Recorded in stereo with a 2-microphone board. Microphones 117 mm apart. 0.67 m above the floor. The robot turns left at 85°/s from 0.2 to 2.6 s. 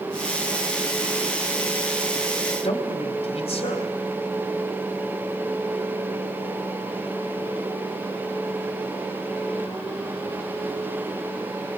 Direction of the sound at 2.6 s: 65° left (ahead or behind).